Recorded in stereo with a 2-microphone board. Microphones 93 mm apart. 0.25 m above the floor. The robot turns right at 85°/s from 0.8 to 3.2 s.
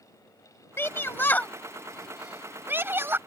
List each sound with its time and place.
0.8 s a shout: 25° left (ahead or behind); by 3.2 s 25° right (ahead or behind)